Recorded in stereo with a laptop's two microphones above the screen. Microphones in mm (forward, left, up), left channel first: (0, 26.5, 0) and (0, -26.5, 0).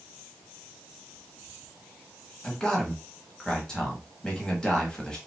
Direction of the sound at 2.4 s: 15° left (ahead or behind).